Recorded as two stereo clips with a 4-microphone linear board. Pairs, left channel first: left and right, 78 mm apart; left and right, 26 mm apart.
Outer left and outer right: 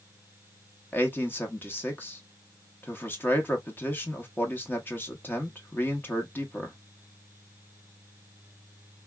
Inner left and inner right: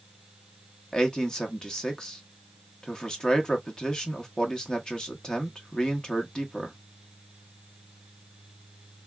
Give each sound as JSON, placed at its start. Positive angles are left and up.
{"t": 0.9, "sound": "a man speaking", "side_deg": 25, "distance_m": 0.9}